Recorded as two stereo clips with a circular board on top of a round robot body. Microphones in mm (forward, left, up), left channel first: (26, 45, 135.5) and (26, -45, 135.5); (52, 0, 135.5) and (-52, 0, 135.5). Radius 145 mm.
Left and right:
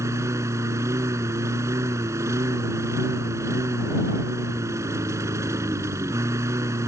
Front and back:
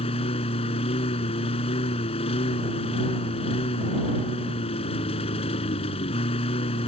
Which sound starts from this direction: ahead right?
A lawn mower, at 0.0 s.